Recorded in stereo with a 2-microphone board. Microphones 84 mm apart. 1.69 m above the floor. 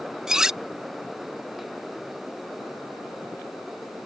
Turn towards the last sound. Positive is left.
turn(degrees=-10)  # may be behind; listen again after turning